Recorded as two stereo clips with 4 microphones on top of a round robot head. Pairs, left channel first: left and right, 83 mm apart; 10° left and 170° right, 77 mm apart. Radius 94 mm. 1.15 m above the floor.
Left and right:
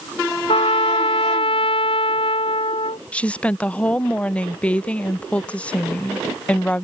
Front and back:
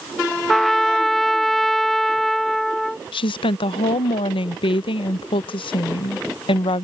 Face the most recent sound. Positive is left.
turn(degrees=15)